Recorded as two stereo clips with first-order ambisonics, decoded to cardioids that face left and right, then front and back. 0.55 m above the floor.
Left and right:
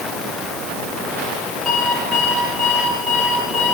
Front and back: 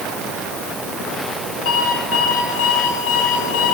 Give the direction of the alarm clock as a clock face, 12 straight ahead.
11 o'clock.